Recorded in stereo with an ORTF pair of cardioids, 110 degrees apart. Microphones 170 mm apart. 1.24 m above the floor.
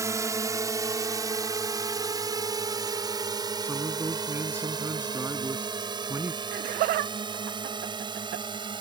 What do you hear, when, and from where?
0.0 s a drone: 20° right; by 8.8 s 30° right
3.6 s a man speaking: 15° right
6.5 s laughter: 60° right